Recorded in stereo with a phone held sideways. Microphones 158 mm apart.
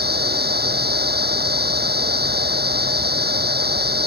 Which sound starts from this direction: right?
A machine running, at 0.0 s.